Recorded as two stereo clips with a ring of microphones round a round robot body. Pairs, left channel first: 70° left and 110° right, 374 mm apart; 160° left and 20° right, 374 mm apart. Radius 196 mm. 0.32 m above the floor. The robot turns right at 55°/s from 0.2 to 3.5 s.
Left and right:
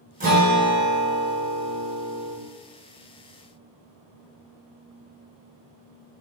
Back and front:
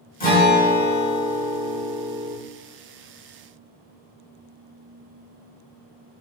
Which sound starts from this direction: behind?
A guitar, at 0.2 s.